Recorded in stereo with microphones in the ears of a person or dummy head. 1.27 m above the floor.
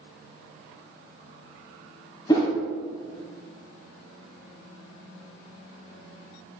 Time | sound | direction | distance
2.3 | a whoosh | 20° left (ahead or behind) | 0.8 m